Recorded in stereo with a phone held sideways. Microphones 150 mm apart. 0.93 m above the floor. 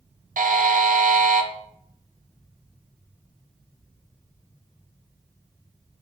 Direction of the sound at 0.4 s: 60° right (ahead or behind).